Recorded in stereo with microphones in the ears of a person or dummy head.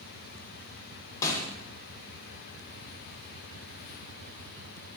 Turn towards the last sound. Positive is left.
turn(degrees=15)  # may be behind; listen again after turning